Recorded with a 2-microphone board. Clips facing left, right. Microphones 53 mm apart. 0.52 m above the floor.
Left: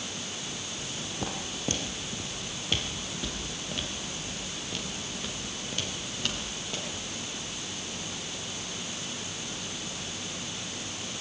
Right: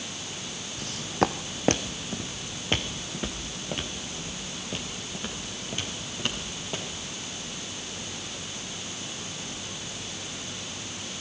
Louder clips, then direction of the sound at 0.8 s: Right 12 dB; 65° right (ahead or behind).